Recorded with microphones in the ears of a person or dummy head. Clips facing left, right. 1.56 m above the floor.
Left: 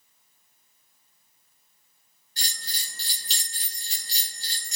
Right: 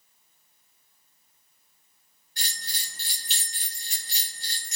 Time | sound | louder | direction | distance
2.4 | a bell | even | 30° left (ahead or behind) | 1.6 m